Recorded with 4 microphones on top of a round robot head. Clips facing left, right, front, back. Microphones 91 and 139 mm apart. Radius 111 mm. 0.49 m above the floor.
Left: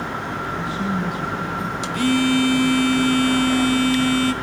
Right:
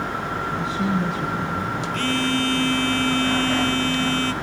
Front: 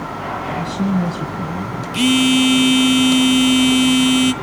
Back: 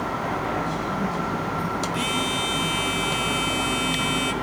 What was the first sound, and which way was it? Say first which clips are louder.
A man speaking: right 1 dB, front 6 dB; 15° right.